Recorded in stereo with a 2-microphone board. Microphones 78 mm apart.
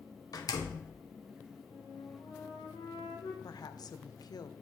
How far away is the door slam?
About 0.9 m.